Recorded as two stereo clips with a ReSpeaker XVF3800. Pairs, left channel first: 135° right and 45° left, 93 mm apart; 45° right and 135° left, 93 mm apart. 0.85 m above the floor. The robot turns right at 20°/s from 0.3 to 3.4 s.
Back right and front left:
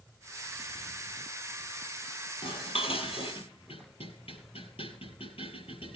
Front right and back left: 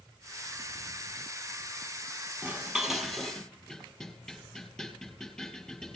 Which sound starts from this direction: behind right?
Dishes clattering, at 2.4 s.